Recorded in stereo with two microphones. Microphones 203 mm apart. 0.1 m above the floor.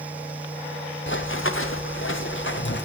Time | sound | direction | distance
1.1 | running footsteps | 65° left (ahead or behind) | 1.5 m